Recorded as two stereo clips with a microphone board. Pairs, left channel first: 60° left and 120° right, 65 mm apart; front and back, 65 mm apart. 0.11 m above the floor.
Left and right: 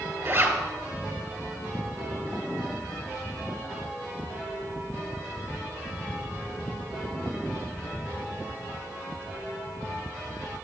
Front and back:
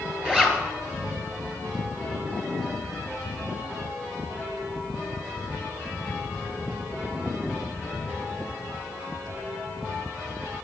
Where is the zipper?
110° right, 2 m.